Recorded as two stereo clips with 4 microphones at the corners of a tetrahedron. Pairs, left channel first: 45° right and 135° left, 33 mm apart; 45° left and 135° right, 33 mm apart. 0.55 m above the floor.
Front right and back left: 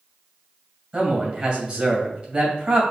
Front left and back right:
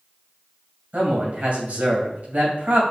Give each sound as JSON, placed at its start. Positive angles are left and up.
{"t": 0.9, "sound": "a man speaking", "azimuth_deg": -160, "distance_m": 2.5}